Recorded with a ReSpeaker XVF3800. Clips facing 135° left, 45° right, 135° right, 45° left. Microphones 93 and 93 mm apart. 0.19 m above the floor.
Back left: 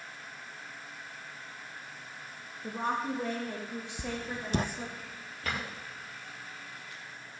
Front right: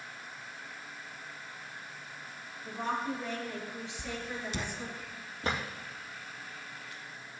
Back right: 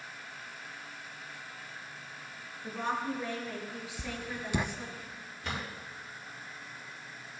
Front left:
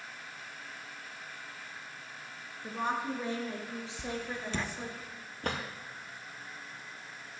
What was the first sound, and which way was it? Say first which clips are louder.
A woman speaking: back left 2 dB, even; 120° left.